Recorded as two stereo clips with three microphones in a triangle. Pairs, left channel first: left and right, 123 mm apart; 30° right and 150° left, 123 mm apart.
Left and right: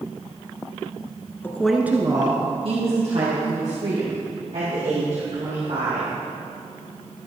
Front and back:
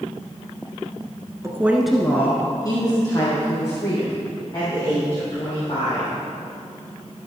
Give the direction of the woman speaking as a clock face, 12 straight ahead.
7 o'clock.